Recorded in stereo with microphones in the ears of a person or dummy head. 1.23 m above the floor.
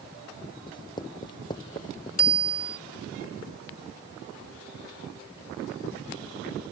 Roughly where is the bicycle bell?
Left.